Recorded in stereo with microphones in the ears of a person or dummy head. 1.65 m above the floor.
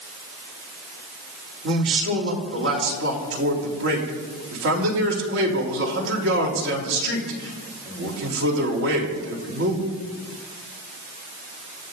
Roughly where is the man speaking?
Right.